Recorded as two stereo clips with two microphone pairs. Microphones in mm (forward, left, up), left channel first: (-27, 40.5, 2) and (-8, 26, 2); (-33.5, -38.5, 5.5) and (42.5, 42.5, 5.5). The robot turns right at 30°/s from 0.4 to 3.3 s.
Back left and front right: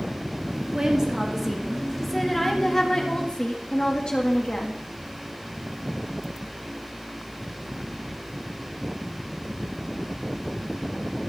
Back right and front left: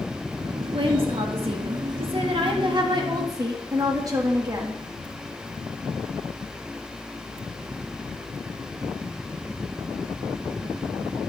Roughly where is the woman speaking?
Ahead.